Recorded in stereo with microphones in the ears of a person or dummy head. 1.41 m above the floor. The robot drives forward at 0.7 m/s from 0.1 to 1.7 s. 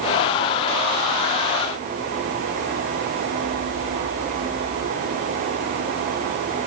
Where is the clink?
No clink in this recording.